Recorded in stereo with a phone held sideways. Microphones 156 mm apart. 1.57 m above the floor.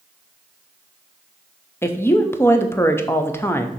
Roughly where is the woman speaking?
Centre.